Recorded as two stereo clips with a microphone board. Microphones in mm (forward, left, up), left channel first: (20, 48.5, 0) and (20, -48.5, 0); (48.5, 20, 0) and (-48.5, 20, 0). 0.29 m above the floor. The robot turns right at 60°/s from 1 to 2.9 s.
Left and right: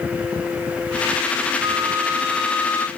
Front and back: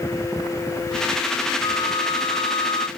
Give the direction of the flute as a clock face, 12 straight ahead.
2 o'clock.